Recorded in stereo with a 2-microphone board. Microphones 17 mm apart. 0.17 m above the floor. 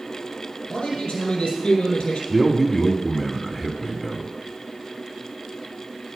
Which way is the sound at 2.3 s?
5° right (ahead or behind).